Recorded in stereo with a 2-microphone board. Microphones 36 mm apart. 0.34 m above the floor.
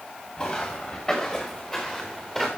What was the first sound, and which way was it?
Footsteps, 20° left (ahead or behind).